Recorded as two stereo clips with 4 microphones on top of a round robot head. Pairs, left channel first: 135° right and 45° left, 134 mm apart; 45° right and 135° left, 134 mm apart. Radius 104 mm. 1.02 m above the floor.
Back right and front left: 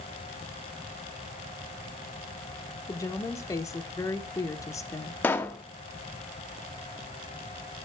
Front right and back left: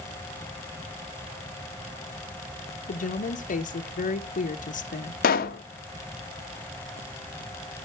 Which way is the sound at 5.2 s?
55° right.